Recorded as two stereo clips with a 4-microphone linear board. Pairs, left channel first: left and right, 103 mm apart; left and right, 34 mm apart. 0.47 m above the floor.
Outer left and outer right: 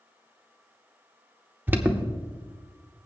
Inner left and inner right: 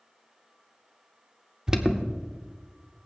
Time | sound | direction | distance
1.7 | an alarm | 20° right (ahead or behind) | 0.9 m